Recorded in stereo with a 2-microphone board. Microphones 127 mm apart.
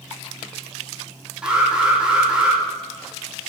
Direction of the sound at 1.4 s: 5° right (ahead or behind).